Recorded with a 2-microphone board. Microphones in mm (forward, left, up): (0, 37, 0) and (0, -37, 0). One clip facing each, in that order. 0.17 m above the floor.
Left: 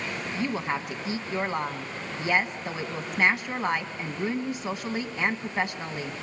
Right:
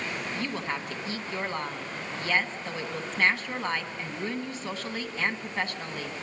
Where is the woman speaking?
20° left (ahead or behind), 1.4 m.